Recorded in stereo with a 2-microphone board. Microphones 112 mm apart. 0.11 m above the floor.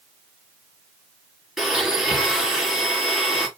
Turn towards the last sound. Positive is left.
turn(degrees=-5)  # may be behind; listen again after turning